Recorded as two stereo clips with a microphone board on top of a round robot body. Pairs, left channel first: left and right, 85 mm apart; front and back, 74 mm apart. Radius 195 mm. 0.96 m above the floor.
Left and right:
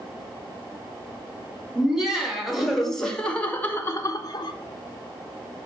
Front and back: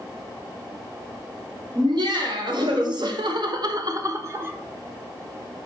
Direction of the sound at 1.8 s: 170° right.